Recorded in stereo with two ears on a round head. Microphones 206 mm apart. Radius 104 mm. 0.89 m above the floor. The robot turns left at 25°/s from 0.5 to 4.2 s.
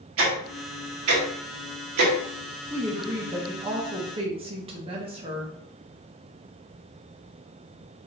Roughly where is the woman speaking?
Centre.